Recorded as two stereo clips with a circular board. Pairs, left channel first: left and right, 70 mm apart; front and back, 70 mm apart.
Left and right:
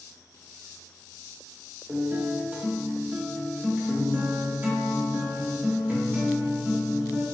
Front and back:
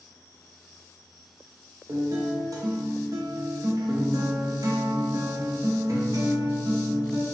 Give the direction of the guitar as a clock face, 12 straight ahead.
5 o'clock.